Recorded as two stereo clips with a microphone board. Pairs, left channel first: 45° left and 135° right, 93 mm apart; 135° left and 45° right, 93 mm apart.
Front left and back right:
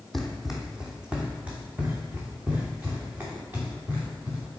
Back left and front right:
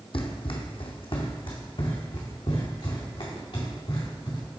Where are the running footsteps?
130° left, 0.9 m; by 4.6 s 155° left, 3.5 m.